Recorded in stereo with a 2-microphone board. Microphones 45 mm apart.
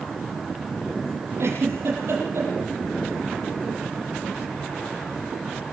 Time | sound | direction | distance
1.4 | a giggle | 70° right (ahead or behind) | 8 m